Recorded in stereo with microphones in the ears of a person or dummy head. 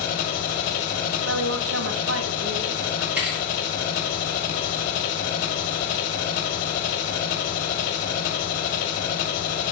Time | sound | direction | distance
0.0 | an engine running | 65° left (ahead or behind) | 1.4 m
1.2 | a woman speaking | 80° right | 0.9 m
3.2 | a thud | centre (ahead or behind) | 3.5 m